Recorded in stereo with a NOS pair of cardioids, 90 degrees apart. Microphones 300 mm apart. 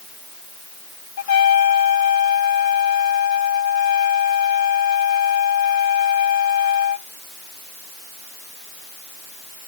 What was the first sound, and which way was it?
A trumpet, 65° left.